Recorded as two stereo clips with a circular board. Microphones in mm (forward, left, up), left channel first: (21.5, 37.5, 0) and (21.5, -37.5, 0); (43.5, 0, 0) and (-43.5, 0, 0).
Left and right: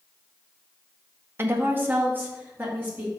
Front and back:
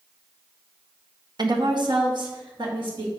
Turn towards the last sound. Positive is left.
turn(degrees=-155)